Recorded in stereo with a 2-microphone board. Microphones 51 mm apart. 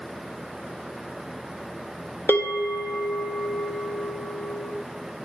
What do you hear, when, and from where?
2.3 s a bell: 55° left (ahead or behind), 1.2 m